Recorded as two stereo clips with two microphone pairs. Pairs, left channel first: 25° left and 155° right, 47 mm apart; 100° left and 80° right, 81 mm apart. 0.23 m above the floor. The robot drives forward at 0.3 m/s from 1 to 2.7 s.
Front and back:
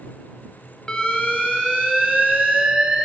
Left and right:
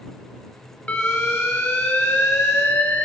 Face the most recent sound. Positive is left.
turn(degrees=150)